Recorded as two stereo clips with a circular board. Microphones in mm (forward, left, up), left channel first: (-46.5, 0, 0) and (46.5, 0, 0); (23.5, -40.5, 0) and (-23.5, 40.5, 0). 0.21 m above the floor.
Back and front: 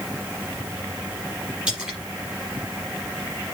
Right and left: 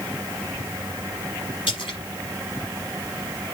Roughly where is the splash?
Right.